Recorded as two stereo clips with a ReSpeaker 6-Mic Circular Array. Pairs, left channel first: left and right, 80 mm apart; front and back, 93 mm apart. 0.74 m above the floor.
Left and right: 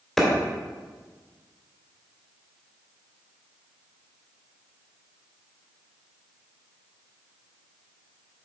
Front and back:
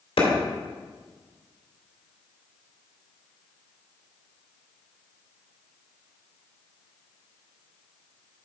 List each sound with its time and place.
0.2 s a clap: straight ahead, 2.5 m